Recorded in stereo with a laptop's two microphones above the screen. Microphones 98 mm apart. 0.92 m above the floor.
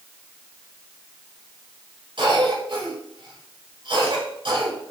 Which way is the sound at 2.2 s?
60° right (ahead or behind).